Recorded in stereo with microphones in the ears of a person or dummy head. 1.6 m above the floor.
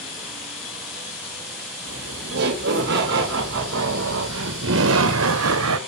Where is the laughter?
55° right (ahead or behind), 3 m; by 5.8 s 85° right, 1.5 m.